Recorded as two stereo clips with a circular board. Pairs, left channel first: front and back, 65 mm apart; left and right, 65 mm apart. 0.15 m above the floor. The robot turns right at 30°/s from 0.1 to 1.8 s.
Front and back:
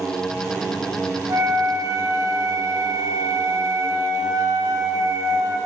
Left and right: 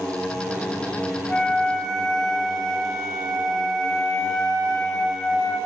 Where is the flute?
155° left, 1.5 m; by 5.6 s 170° left, 1.5 m.